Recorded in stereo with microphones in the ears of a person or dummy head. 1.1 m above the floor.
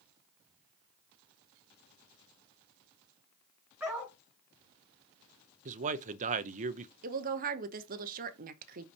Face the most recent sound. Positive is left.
turn(degrees=-45)  # may be behind; listen again after turning